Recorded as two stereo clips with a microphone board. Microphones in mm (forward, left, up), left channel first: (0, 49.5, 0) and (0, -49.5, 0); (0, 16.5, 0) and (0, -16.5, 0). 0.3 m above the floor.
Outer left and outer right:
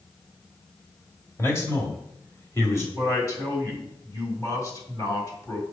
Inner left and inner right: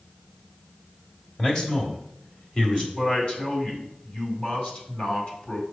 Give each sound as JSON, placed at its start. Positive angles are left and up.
{"t": 1.4, "sound": "a man speaking", "side_deg": 25, "distance_m": 1.4}
{"t": 3.0, "sound": "a woman speaking", "side_deg": 35, "distance_m": 1.8}